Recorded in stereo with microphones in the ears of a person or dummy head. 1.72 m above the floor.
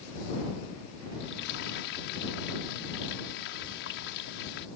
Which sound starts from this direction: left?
Frying, at 1.2 s.